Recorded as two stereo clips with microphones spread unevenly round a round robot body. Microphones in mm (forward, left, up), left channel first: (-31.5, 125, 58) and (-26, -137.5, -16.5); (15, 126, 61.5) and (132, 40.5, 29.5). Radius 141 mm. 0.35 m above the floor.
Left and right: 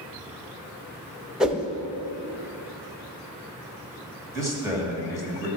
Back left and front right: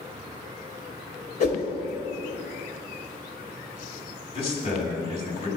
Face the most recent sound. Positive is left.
turn(degrees=-155)